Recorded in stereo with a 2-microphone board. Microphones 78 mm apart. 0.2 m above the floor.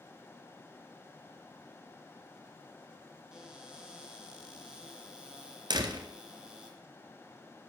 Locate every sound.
3.3 s a cupboard door: 10° right (ahead or behind), 3 m
5.7 s a door slam: 70° right (ahead or behind), 1.9 m